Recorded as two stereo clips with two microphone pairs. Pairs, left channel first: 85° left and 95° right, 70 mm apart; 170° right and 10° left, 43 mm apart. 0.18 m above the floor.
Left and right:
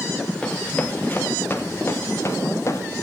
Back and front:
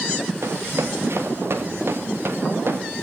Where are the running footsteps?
15° left, 1.6 m; by 2.8 s 40° left, 2.5 m.